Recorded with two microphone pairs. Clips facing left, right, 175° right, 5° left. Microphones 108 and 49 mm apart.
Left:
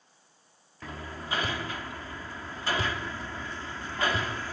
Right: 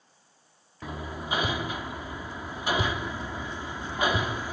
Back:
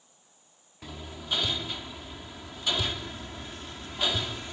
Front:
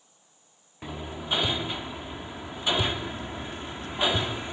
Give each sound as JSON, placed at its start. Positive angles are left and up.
{"t": 0.8, "sound": "hammering", "azimuth_deg": -30}